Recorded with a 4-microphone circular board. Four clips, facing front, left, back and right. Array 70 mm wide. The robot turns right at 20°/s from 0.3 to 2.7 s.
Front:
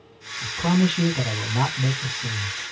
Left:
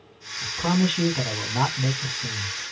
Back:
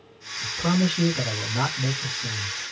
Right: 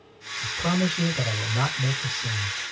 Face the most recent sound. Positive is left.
turn(degrees=80)